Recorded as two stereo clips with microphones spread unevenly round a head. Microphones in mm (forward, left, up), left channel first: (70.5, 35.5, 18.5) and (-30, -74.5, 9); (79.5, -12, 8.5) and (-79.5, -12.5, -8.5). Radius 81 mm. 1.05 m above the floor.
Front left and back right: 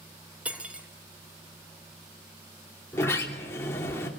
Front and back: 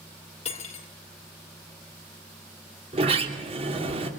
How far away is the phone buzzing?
No phone buzzing in this recording.